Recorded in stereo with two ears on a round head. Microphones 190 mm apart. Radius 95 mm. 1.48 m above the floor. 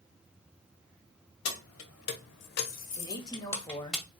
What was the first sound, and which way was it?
Keys jangling, 70° left (ahead or behind).